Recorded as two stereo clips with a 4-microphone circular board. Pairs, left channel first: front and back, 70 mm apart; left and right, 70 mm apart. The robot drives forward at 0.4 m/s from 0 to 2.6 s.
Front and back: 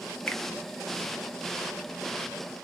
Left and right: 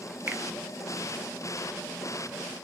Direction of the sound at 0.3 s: 45° right.